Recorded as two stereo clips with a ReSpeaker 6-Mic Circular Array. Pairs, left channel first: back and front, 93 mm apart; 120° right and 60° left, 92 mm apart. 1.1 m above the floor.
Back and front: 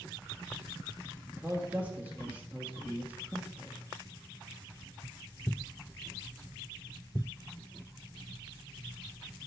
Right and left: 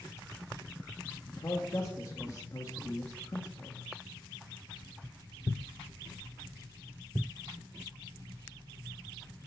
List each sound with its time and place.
1.3 s a man speaking: 70° right, 1.7 m